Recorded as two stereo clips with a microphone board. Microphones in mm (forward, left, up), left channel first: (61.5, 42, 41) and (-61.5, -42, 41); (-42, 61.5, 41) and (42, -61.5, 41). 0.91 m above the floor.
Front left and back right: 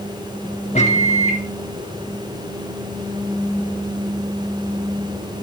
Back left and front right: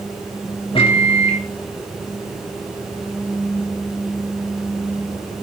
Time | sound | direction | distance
0.8 | a microwave | 75° left | 1.9 m